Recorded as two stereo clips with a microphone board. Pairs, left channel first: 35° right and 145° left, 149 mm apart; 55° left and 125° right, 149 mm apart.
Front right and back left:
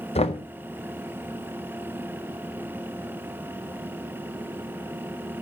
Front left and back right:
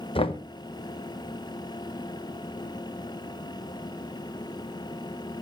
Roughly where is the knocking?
Ahead.